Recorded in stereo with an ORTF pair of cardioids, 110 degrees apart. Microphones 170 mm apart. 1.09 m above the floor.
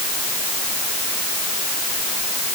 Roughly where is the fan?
I don't hear a fan.